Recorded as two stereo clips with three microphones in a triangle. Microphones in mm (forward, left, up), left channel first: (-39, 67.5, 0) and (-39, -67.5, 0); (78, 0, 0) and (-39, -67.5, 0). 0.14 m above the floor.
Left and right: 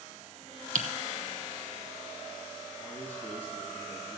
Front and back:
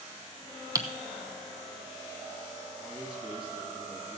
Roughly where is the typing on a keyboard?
Right.